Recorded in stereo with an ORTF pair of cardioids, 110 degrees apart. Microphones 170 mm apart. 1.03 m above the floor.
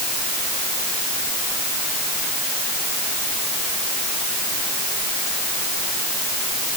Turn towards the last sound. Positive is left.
No sound to turn to.